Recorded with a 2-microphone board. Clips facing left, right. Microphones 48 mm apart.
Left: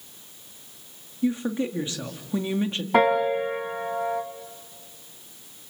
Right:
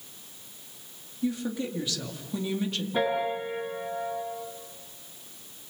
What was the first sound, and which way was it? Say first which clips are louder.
A woman speaking: left 5 dB; 30° left (ahead or behind).